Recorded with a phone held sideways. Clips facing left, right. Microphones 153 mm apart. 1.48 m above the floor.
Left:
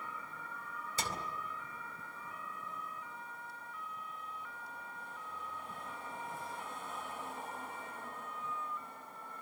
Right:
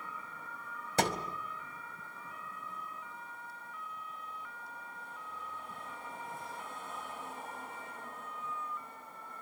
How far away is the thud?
About 2 m.